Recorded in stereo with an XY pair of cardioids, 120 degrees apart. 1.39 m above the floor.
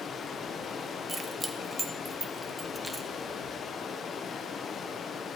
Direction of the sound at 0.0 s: 40° left.